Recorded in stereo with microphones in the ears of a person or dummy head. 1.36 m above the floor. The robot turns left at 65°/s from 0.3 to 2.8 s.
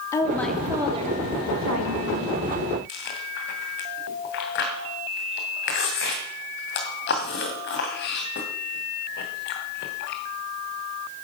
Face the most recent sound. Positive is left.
turn(degrees=50)  # may be behind; listen again after turning